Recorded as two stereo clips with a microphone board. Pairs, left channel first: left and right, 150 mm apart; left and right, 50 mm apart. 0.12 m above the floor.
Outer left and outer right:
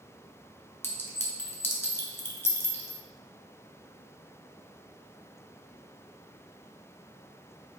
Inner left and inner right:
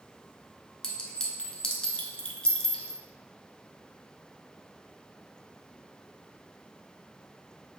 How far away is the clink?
About 0.9 m.